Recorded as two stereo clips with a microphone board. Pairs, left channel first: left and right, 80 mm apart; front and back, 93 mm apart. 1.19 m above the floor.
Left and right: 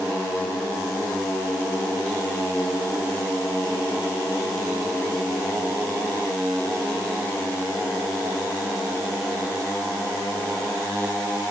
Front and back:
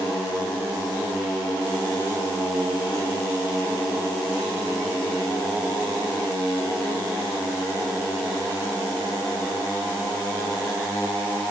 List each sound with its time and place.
Only background noise.